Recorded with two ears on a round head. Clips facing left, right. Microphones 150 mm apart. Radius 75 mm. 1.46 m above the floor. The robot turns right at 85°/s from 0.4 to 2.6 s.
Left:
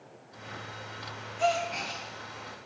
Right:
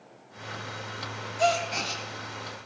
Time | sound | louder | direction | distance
1.4 | a gasp | right 2 dB | 120° right | 0.6 m